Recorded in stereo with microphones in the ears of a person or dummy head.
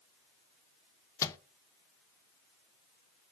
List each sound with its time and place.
1.2 s a microwave: 20° left (ahead or behind), 0.6 m